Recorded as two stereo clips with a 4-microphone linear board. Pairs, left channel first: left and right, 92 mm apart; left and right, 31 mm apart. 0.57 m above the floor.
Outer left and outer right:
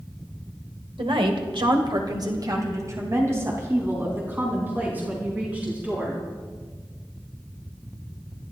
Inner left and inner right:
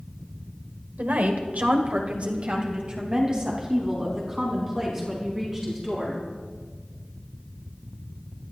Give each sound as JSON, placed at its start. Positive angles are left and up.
{"t": 1.0, "sound": "a woman speaking", "side_deg": -70, "distance_m": 2.0}